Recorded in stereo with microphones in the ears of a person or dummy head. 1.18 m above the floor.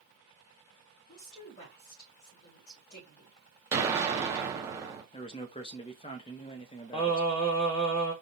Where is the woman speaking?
45° left (ahead or behind), 2 m.